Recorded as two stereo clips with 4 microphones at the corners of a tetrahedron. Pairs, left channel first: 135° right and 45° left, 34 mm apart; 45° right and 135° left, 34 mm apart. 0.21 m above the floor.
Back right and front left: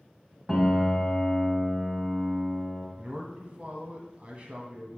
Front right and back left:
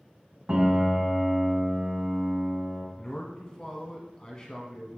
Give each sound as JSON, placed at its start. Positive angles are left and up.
{"t": 0.5, "sound": "a piano", "azimuth_deg": 130, "distance_m": 1.8}
{"t": 3.0, "sound": "a man speaking", "azimuth_deg": 10, "distance_m": 1.7}